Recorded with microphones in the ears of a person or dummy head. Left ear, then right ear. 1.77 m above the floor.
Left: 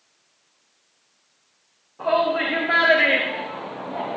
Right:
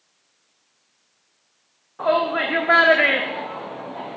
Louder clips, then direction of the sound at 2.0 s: Even; 45° right (ahead or behind).